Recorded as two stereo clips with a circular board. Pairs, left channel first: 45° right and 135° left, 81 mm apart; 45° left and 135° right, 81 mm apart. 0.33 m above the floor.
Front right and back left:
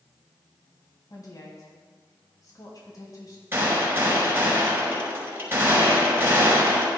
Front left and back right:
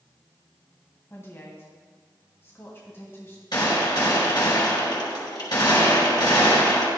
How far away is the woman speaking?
About 2 m.